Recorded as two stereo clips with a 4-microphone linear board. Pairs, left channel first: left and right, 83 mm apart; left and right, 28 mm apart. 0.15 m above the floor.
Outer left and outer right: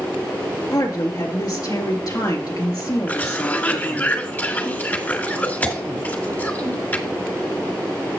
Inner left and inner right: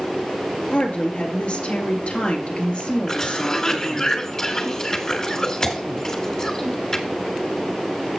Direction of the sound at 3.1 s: 25° left (ahead or behind).